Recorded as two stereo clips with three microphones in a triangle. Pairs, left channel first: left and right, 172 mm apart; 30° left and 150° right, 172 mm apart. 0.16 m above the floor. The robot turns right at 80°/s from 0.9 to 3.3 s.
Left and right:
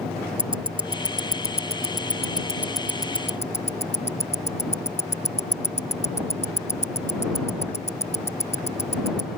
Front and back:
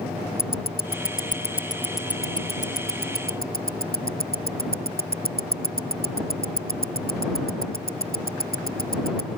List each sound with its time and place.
0.4 s ticking: 150° right; by 9.3 s 45° left